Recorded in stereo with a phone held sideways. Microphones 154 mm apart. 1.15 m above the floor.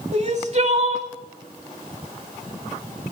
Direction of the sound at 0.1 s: 50° right (ahead or behind).